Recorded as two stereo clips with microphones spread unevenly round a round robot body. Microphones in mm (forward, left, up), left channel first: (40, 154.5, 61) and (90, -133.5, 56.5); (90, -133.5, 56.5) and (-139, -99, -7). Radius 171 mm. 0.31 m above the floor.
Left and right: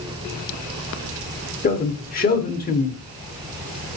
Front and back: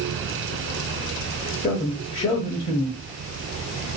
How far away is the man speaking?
About 1.0 m.